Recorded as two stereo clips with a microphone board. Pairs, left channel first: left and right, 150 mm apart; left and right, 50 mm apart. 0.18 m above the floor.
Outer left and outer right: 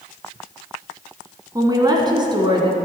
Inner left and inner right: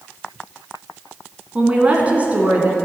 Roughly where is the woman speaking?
Right.